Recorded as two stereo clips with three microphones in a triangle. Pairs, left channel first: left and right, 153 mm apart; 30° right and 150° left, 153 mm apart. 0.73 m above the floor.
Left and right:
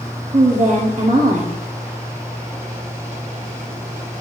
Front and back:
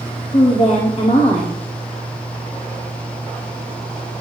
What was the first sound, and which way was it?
A woman speaking, 70° right.